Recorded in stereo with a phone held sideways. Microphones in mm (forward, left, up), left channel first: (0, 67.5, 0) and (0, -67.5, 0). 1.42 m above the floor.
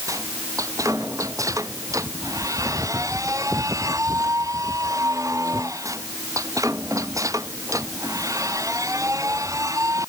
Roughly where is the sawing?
I don't hear sawing.